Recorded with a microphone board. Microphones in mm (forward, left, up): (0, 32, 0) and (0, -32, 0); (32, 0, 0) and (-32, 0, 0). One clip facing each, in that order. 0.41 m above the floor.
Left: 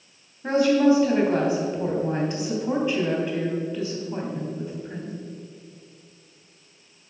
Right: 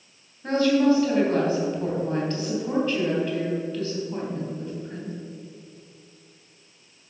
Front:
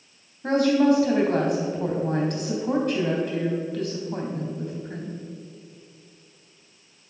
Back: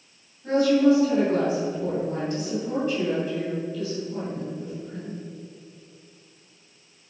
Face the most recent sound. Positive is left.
turn(degrees=15)